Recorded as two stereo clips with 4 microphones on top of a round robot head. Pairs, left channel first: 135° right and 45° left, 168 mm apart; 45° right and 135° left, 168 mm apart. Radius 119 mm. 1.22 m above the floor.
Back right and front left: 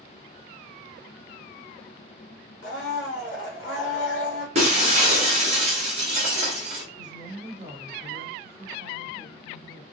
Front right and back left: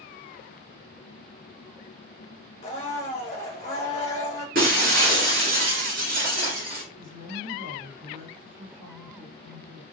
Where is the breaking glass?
95° left, 0.8 m.